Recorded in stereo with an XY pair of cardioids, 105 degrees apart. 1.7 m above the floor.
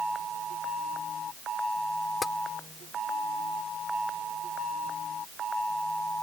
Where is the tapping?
35° left.